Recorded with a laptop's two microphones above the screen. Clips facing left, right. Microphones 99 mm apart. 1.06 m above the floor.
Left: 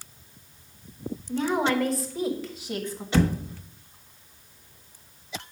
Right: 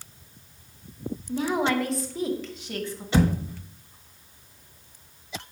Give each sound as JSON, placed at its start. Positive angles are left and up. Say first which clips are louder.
{"t": 1.3, "sound": "a woman speaking", "louder": "even", "side_deg": -5, "distance_m": 2.0}
{"t": 3.1, "sound": "a thud", "louder": "right 1 dB", "side_deg": -15, "distance_m": 0.9}